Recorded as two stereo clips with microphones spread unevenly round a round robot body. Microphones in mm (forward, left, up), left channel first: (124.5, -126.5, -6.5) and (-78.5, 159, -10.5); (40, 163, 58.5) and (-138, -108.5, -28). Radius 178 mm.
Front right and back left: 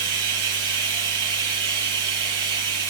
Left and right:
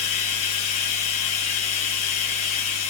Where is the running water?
90° left, 4.5 m.